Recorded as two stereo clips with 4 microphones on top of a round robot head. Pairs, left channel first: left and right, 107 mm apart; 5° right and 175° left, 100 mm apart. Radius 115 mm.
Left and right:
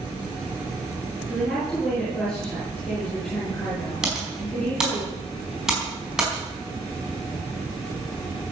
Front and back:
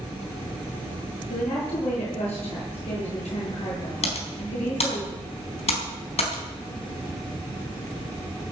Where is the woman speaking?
5° left, 8.5 m.